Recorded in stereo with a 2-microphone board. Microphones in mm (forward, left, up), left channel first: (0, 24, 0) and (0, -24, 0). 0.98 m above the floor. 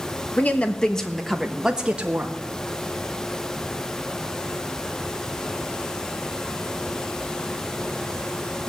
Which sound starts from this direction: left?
A woman speaking, at 0.4 s.